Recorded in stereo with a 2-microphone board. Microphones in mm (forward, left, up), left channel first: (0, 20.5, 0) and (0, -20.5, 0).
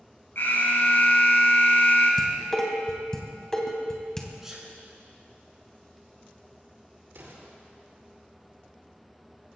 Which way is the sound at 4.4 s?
10° right (ahead or behind).